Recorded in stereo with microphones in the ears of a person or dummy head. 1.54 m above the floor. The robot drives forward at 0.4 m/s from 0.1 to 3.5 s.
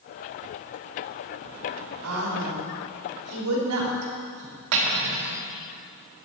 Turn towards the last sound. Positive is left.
turn(degrees=-65)  # may be behind; listen again after turning